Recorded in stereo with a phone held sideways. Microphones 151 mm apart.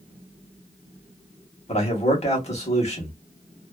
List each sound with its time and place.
1.7 s a man speaking: 45° left (ahead or behind), 1.2 m